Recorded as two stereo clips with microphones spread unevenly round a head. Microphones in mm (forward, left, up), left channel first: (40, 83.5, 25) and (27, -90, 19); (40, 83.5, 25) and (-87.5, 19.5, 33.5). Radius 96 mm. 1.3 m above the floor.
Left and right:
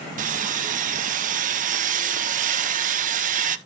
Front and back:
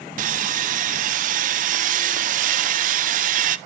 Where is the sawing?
130° right, 0.8 m.